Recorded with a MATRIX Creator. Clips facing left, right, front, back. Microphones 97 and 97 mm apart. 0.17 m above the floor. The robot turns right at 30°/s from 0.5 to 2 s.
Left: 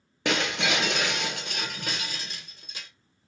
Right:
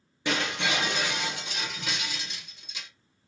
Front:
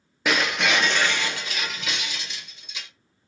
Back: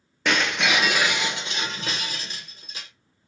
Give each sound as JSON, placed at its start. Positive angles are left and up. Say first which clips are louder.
{"t": 0.2, "sound": "breaking glass", "louder": "left 2 dB, even", "azimuth_deg": 85, "distance_m": 0.5}